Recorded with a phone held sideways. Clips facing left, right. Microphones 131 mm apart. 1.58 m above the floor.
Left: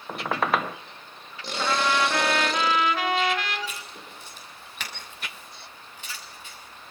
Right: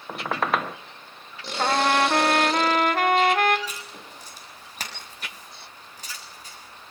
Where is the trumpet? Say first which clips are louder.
Right 3 dB; 50° right (ahead or behind), 1.6 m.